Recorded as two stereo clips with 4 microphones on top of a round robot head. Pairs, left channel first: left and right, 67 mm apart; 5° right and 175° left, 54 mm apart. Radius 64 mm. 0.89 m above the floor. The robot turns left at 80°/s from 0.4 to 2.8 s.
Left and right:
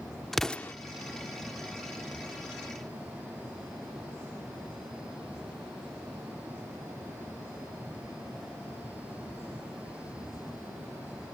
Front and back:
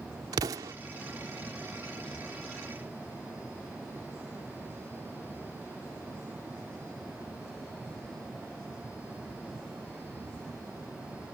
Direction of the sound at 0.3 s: 175° left.